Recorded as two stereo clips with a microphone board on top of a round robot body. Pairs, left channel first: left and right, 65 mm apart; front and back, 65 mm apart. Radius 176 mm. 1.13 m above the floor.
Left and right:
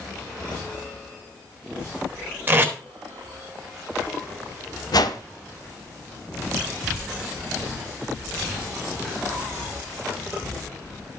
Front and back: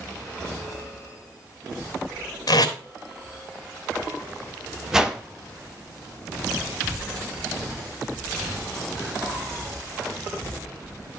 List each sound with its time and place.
2.5 s tape being pulled: 25° right, 1.7 m
4.9 s a whoosh: 95° left, 1.2 m